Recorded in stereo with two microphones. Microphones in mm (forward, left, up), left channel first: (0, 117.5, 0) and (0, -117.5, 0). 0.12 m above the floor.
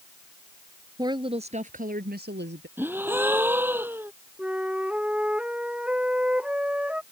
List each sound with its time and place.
1.0 s a woman speaking: 15° right (ahead or behind); by 2.7 s 50° right (ahead or behind)
2.8 s a gasp: 10° right (ahead or behind)
4.4 s a flute: 5° right (ahead or behind)